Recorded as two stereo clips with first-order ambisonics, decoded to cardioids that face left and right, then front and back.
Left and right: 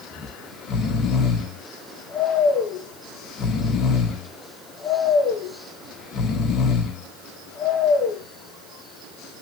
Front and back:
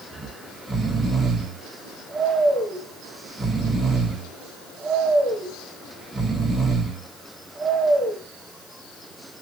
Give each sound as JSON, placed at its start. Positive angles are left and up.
{"t": 0.1, "sound": "snoring", "azimuth_deg": 105, "distance_m": 1.1}